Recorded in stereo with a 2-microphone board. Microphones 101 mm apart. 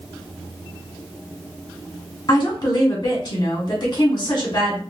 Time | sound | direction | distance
2.3 | a woman speaking | 45° left (ahead or behind) | 1.7 m